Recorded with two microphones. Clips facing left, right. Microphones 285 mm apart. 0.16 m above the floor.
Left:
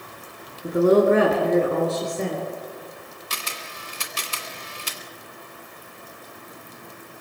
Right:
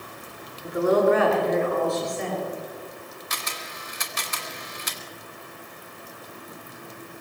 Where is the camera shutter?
35° left (ahead or behind), 2.0 m.